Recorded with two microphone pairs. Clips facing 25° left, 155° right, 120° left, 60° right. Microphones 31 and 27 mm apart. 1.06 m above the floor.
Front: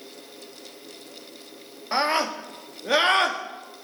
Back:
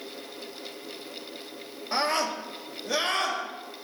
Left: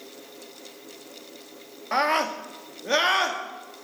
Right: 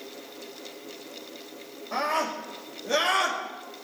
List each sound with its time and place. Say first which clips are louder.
1.9 s a scream: front 3 dB, left 4 dB; 90° left, 1.8 m; by 3.4 s 55° left, 2 m